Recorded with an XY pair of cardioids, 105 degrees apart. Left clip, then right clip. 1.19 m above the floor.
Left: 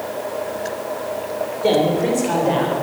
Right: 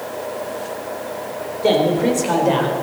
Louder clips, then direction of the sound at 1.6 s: Right 1 dB; 10° right.